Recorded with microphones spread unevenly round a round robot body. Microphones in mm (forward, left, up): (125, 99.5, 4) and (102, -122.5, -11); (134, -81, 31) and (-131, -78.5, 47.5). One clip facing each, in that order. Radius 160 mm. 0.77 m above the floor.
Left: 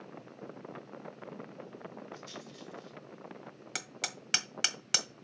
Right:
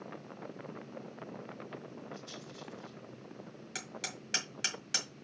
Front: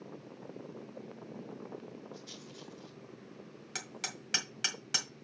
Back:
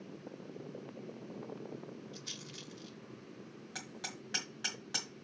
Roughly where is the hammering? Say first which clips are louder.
Right 1 dB, front 2 dB; ahead left.